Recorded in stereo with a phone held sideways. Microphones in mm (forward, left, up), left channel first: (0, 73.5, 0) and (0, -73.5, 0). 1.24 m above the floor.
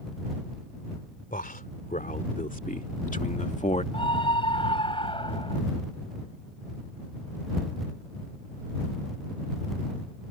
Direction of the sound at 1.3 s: 70° left (ahead or behind).